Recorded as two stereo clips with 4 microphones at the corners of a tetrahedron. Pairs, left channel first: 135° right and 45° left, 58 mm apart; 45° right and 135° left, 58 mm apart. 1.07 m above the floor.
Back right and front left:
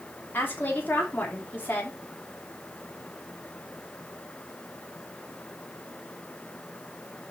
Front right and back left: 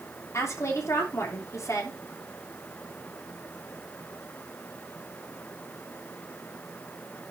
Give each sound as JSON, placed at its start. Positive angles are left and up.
{"t": 0.3, "sound": "a woman speaking", "azimuth_deg": -80, "distance_m": 3.0}